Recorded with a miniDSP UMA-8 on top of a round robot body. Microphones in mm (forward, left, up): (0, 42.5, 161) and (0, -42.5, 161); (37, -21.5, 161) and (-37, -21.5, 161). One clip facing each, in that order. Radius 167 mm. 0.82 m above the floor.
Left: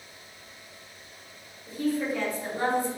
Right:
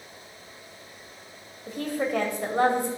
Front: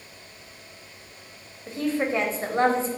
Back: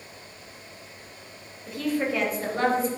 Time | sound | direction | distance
1.7 | a woman speaking | 60° right | 2.5 m